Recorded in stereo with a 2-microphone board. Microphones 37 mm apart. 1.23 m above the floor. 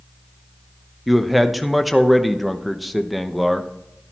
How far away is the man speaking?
About 0.8 m.